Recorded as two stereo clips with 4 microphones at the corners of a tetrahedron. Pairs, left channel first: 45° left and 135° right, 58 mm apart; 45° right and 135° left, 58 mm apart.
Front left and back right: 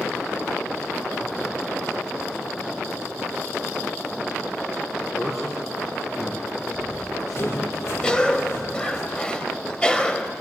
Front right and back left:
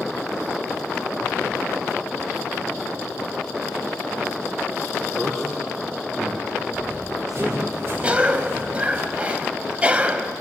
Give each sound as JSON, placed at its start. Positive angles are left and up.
{"t": 5.2, "sound": "a man speaking", "azimuth_deg": 40, "distance_m": 6.0}
{"t": 6.7, "sound": "running footsteps", "azimuth_deg": 85, "distance_m": 7.0}
{"t": 8.0, "sound": "a cough", "azimuth_deg": 100, "distance_m": 1.1}